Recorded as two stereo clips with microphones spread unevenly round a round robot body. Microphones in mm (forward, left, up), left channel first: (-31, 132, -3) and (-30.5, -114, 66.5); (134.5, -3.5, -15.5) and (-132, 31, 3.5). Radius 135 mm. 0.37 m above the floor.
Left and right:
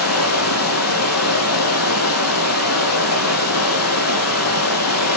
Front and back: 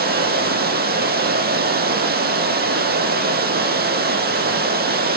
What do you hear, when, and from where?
0.0 s running water: 115° left, 3 m